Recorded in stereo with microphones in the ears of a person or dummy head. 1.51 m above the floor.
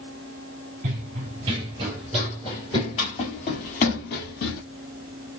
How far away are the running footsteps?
About 1.7 m.